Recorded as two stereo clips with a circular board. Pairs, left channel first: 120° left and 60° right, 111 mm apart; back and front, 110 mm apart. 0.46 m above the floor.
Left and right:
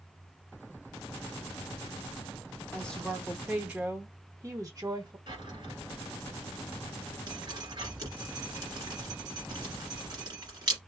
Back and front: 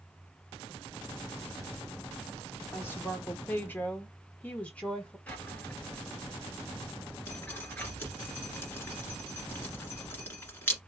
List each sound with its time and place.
2.7 s a woman speaking: 170° left, 0.9 m; by 5.2 s 105° right, 1.5 m
5.3 s a drawer: 105° right, 1.5 m
7.3 s dripping: 110° right, 1.8 m